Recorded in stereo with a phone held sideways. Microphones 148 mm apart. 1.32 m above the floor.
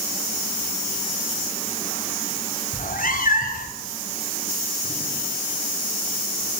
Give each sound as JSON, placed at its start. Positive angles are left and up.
{"t": 2.7, "sound": "a cat meowing", "side_deg": 65, "distance_m": 3.0}